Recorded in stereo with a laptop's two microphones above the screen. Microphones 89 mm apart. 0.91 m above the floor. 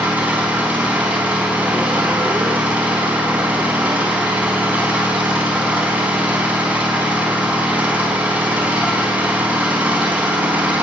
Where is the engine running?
15° right (ahead or behind), 4 m.